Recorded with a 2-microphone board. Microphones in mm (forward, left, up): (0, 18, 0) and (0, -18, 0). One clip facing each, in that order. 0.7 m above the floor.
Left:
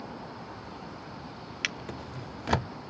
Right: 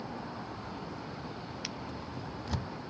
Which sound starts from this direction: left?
A drawer, at 1.6 s.